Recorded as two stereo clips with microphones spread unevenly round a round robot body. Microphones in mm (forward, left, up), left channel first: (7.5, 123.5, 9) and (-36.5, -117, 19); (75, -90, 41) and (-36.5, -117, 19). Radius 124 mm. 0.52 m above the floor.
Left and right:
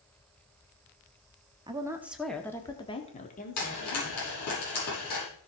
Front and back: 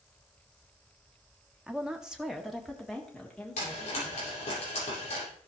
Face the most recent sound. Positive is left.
turn(degrees=50)